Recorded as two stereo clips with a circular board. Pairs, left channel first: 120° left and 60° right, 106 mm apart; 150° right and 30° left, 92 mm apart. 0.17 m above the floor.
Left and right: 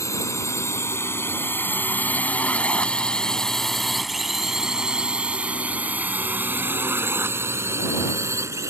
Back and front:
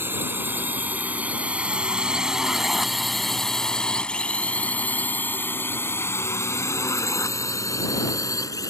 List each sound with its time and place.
0.0 s a drone: 80° left; by 8.7 s 115° right